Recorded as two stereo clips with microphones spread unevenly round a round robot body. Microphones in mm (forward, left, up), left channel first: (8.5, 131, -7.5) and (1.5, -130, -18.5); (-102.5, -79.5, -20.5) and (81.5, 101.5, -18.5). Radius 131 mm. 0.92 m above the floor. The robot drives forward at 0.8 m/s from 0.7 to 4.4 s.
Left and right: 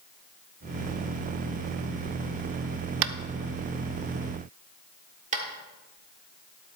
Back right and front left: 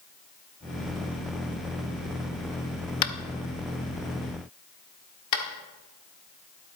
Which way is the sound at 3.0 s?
100° right.